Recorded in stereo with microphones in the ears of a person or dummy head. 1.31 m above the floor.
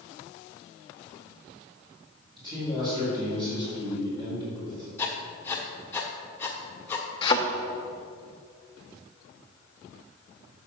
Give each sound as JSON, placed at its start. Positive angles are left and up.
{"t": 2.4, "sound": "a man speaking", "side_deg": -25, "distance_m": 3.0}
{"t": 5.0, "sound": "writing", "side_deg": 10, "distance_m": 1.4}
{"t": 7.2, "sound": "a thud", "side_deg": 30, "distance_m": 0.9}